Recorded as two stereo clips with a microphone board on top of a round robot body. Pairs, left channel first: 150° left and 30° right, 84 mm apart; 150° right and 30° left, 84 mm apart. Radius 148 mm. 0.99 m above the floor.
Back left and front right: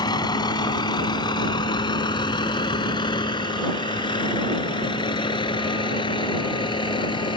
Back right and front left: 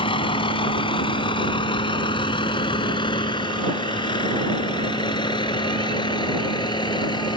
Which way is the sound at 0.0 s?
170° right.